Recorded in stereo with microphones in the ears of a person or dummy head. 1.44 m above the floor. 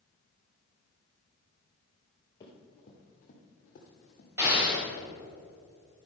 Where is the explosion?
20° right (ahead or behind), 3.5 m.